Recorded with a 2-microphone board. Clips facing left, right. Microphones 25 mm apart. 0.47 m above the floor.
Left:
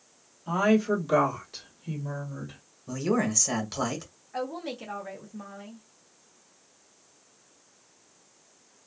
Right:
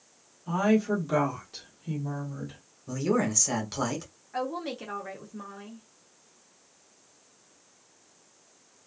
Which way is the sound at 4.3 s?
15° right (ahead or behind).